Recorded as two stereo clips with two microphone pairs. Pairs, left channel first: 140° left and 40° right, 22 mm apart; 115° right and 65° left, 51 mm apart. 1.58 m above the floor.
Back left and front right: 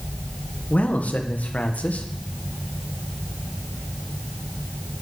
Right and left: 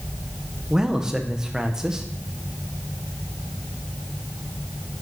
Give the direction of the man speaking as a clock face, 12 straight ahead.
7 o'clock.